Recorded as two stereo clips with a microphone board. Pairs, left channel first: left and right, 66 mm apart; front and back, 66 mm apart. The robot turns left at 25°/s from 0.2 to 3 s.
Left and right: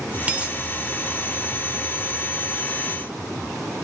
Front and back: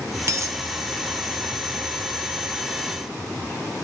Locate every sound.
0.3 s a dropped coin: 150° right, 0.8 m; by 0.6 s 155° right, 0.8 m